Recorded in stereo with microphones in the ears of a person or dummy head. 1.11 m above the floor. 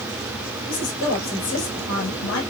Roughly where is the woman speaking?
Left.